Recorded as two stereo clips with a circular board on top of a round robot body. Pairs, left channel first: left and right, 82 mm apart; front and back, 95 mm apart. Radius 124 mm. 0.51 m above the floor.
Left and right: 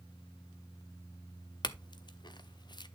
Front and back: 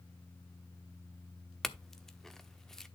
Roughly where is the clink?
Left.